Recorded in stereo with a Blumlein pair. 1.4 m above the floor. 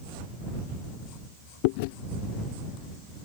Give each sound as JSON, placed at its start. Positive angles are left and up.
{"t": 1.6, "sound": "chewing", "azimuth_deg": 45}